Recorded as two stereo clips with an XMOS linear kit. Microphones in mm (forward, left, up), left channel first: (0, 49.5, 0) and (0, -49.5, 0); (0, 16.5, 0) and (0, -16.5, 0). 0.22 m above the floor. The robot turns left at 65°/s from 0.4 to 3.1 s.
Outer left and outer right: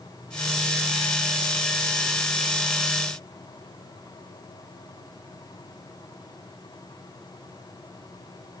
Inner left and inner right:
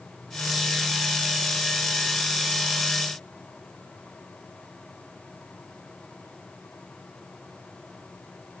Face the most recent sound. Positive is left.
No sound to turn to.